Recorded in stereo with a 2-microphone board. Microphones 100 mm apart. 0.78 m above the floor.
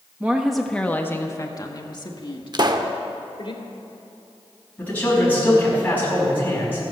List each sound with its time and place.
0.2 s a woman speaking: 15° right (ahead or behind), 0.7 m; by 3.5 s 60° left (ahead or behind), 2.0 m
2.5 s a pop: 45° right (ahead or behind), 0.7 m
4.8 s a man speaking: 15° left (ahead or behind), 5.5 m